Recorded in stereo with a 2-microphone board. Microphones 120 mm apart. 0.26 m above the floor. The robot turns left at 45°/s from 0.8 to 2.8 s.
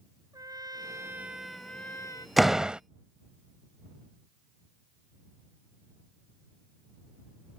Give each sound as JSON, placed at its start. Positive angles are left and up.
{"t": 0.3, "sound": "a trumpet", "azimuth_deg": -145}
{"t": 2.4, "sound": "a door slam", "side_deg": 0}